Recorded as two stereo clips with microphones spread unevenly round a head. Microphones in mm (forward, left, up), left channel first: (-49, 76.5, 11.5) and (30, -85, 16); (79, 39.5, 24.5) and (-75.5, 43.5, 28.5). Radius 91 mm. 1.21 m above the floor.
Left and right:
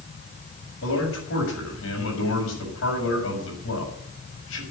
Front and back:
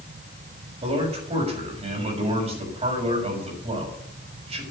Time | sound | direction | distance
0.8 | a man speaking | 130° left | 6.5 m